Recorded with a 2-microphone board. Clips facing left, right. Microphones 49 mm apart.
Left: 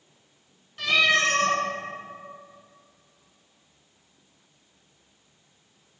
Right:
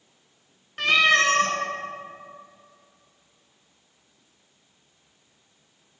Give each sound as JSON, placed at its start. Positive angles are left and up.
{"t": 0.8, "sound": "a cat meowing", "side_deg": -60, "distance_m": 0.5}